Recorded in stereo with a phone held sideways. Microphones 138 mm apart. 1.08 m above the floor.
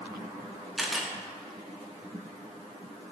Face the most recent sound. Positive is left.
turn(degrees=0)  # may be behind; listen again after turning